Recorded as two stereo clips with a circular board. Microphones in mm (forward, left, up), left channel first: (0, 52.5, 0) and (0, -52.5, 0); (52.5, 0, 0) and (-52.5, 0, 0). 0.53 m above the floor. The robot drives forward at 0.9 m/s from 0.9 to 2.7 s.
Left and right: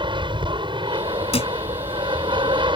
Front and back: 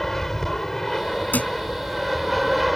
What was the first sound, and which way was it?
An aircraft, 85° right.